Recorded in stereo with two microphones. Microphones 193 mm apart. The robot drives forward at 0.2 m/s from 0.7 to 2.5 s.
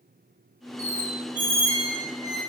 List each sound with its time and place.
0.8 s a squeak: 15° right (ahead or behind), 0.7 m; by 2.4 s 20° right (ahead or behind), 0.7 m